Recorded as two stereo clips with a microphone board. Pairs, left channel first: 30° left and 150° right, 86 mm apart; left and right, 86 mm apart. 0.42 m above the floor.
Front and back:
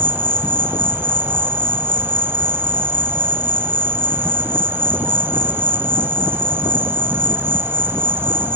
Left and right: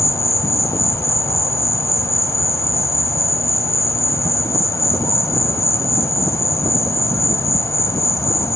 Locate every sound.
0.0 s an insect: 145° left, 0.7 m